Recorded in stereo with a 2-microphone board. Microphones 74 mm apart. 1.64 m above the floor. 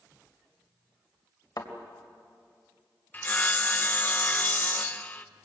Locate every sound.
1.6 s a thud: 60° left (ahead or behind), 3 m
3.1 s sawing: 20° left (ahead or behind), 0.8 m